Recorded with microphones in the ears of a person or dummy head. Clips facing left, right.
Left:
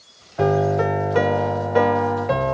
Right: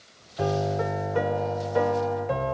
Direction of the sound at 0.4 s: 70° left (ahead or behind).